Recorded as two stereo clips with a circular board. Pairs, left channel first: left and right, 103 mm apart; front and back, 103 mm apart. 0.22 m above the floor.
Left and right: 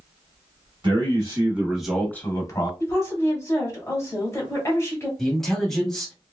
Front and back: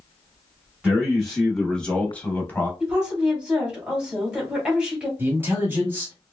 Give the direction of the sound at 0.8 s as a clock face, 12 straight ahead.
3 o'clock.